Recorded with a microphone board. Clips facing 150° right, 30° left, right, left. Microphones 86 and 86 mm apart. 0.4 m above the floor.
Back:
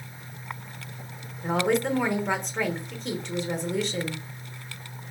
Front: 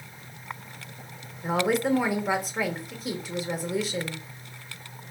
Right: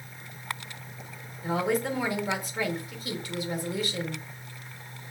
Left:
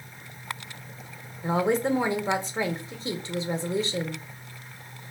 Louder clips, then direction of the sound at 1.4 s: Even, left 3 dB; 110° left.